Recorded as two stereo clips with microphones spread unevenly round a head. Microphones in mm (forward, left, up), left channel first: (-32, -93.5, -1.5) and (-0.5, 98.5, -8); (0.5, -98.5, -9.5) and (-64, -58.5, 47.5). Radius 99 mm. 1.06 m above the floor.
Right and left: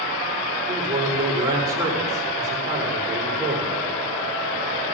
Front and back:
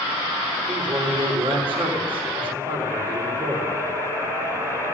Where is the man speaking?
155° left, 3.5 m.